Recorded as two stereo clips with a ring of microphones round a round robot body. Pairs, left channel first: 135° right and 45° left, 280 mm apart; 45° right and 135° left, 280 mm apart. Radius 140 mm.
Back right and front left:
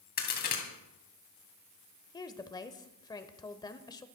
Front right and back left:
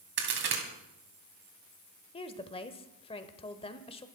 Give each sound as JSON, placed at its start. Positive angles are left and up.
{"t": 0.2, "sound": "a crack", "azimuth_deg": 175, "distance_m": 3.0}
{"t": 2.1, "sound": "a woman speaking", "azimuth_deg": -80, "distance_m": 0.9}